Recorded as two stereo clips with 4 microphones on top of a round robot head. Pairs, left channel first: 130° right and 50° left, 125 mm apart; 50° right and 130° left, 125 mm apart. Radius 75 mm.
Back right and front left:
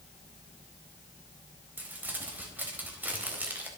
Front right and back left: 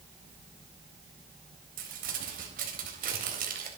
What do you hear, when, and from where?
1.8 s crumpling: 130° left, 4 m